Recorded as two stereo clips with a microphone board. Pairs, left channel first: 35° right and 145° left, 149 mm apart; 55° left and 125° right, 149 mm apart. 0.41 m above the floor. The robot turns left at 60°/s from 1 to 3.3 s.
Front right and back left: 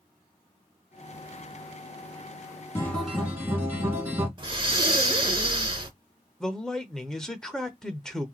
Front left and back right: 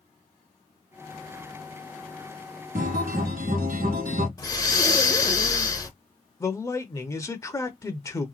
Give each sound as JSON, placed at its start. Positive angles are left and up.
{"t": 2.8, "sound": "a guitar", "azimuth_deg": -105, "distance_m": 1.4}
{"t": 4.4, "sound": "breathing", "azimuth_deg": 110, "distance_m": 0.8}
{"t": 6.4, "sound": "a man speaking", "azimuth_deg": 45, "distance_m": 0.7}